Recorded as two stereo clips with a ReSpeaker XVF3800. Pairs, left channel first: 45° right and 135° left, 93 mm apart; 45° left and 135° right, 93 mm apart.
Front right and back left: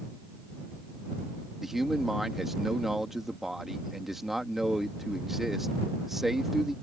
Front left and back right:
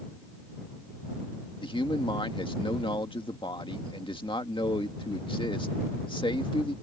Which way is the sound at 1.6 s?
50° left.